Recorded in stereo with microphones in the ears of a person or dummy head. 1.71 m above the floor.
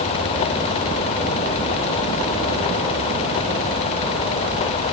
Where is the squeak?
I don't hear a squeak.